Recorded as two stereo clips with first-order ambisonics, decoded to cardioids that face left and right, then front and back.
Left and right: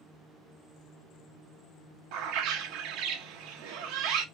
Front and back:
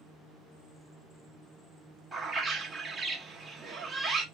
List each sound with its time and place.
2.1 s a bird: 100° right, 0.9 m